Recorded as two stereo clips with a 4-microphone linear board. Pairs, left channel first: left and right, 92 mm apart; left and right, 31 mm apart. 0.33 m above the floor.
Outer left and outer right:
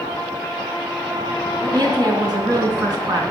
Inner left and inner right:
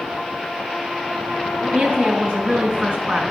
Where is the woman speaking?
50° right (ahead or behind), 2.5 m.